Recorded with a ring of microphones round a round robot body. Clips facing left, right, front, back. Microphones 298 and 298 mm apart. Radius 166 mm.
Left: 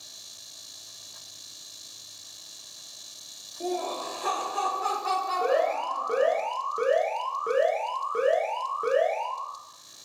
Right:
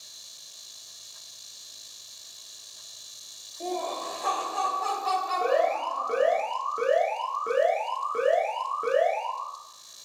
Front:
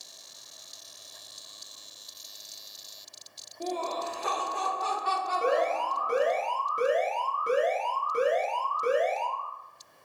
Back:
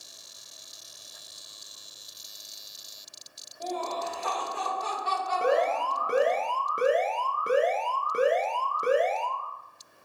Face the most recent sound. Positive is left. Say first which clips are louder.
# even, back 2 dB
turn(degrees=180)